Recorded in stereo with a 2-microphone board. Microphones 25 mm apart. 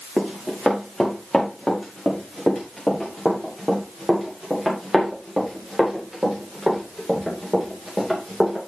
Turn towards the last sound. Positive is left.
turn(degrees=0)  # may be behind; listen again after turning